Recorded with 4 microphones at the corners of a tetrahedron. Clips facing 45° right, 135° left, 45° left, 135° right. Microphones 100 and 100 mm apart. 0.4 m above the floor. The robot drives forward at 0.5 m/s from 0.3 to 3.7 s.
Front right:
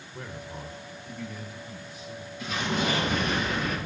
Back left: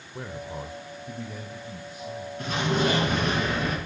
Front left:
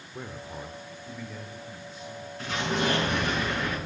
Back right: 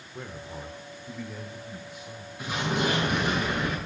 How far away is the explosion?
About 5.5 m.